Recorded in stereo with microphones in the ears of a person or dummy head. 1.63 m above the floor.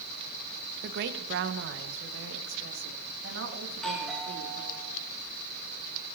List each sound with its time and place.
0.8 s a woman speaking: 60° right (ahead or behind), 1.1 m; by 4.7 s 80° right, 3.5 m
3.7 s a doorbell: 5° left (ahead or behind), 3.5 m